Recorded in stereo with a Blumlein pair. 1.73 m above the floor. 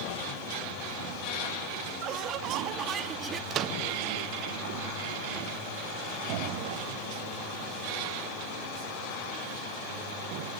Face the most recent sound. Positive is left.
turn(degrees=-30)